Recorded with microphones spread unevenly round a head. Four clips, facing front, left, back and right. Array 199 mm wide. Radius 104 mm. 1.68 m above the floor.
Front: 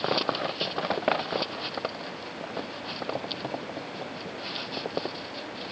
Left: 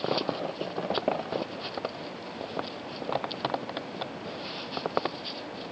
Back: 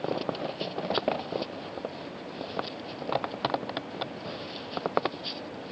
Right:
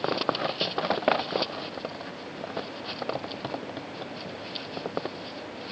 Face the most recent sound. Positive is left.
No sound to turn to.